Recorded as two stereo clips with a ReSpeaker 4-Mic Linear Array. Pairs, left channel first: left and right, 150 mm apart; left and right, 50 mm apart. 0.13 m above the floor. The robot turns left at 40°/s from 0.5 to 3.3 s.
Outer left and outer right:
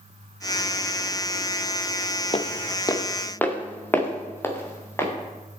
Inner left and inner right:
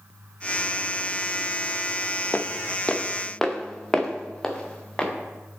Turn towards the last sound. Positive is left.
turn(degrees=15)  # may be behind; listen again after turning